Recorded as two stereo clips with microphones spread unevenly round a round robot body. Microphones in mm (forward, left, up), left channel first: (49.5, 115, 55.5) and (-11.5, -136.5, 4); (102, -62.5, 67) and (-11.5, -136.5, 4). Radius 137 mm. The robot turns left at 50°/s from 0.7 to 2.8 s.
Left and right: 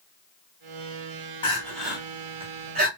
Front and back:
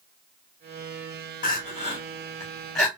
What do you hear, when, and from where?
1.4 s crying: straight ahead, 1.7 m; by 2.9 s 70° right, 1.7 m